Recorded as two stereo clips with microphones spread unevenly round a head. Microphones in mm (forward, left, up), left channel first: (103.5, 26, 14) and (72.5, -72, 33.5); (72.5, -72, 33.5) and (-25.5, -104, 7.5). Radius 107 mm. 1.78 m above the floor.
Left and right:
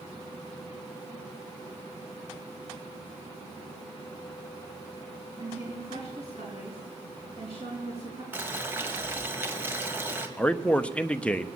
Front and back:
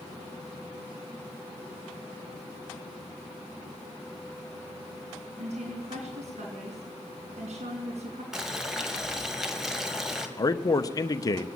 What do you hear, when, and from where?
5.4 s a woman speaking: 160° right, 4 m
8.3 s boiling: 60° right, 2.0 m
10.4 s a man speaking: 10° right, 1.0 m